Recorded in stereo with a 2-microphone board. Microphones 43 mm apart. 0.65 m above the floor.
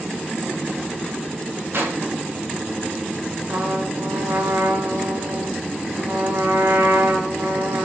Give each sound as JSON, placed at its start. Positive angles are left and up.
{"t": 1.7, "sound": "a clap", "side_deg": -70, "distance_m": 6.0}
{"t": 3.5, "sound": "a trumpet", "side_deg": -80, "distance_m": 4.0}